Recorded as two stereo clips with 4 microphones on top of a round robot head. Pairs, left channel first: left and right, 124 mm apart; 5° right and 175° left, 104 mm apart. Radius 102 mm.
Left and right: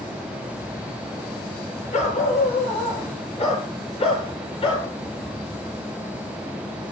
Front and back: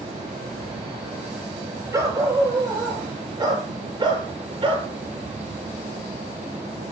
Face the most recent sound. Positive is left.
turn(degrees=135)